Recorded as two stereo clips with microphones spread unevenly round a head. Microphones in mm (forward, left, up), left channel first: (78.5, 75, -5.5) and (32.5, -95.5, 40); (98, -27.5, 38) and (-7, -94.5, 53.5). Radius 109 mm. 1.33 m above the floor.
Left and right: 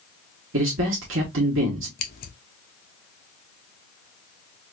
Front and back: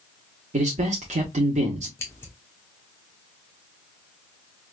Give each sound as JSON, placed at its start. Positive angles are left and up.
{"t": 0.5, "sound": "a man speaking", "azimuth_deg": -130, "distance_m": 1.0}
{"t": 2.0, "sound": "scissors", "azimuth_deg": 105, "distance_m": 0.7}